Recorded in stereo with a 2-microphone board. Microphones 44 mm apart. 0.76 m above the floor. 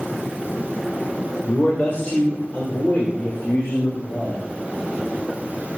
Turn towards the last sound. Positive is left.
turn(degrees=40)  # may be behind; listen again after turning